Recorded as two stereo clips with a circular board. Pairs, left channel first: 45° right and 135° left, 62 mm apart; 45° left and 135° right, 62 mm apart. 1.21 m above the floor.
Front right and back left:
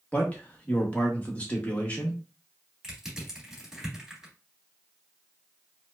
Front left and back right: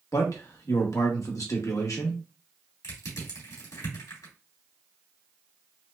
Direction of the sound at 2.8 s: 55° left.